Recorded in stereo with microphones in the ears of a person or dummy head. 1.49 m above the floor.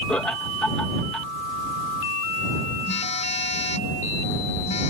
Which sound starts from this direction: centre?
Laughter, at 0.1 s.